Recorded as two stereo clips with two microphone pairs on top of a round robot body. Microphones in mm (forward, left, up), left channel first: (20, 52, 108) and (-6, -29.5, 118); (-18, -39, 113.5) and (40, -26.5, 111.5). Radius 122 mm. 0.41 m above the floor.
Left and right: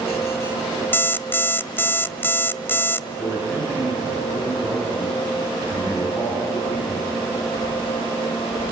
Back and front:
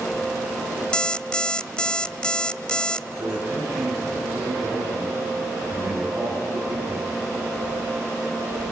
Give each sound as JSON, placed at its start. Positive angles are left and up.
{"t": 0.9, "sound": "an alarm clock", "azimuth_deg": 120, "distance_m": 0.7}
{"t": 3.2, "sound": "a man speaking", "azimuth_deg": -30, "distance_m": 8.5}